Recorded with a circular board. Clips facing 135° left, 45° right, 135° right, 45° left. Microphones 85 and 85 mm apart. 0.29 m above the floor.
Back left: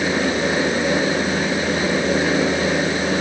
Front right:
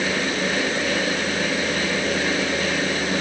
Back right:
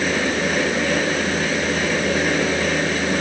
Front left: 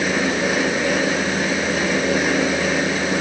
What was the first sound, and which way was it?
Only background noise.